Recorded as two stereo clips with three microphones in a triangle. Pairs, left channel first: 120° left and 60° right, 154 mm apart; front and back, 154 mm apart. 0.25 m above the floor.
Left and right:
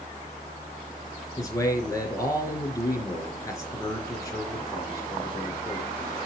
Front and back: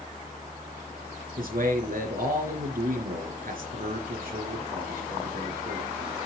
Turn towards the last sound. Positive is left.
turn(degrees=-175)